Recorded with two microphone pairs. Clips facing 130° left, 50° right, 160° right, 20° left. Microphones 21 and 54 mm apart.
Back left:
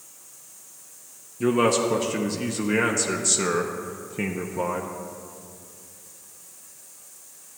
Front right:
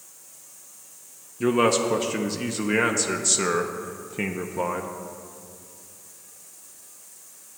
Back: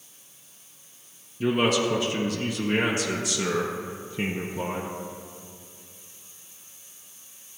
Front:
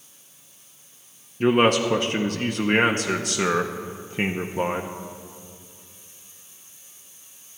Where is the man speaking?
15° left, 0.6 m.